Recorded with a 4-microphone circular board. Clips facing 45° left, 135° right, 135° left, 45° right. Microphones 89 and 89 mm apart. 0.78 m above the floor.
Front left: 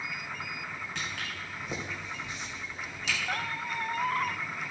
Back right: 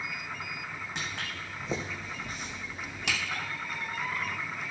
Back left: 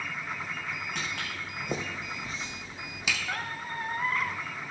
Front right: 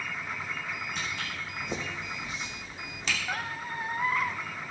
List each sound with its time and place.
0.9 s footsteps: 155° left, 3.5 m; by 3.2 s 145° right, 2 m
3.3 s a squeak: 35° left, 0.7 m